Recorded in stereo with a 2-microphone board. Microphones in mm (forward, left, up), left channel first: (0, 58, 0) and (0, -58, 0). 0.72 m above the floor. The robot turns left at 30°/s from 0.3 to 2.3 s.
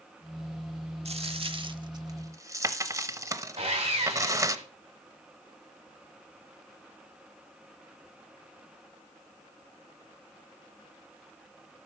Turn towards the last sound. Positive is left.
turn(degrees=-50)  # may be behind; listen again after turning